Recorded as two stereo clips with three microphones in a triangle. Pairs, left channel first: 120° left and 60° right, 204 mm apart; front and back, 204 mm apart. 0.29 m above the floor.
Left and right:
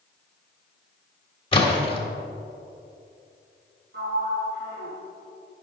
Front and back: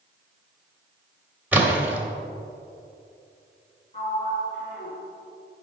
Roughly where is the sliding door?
Ahead right.